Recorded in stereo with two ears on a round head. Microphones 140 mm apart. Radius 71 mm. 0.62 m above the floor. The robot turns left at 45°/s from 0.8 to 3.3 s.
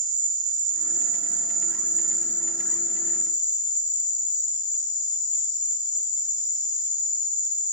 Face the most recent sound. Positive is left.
turn(degrees=125)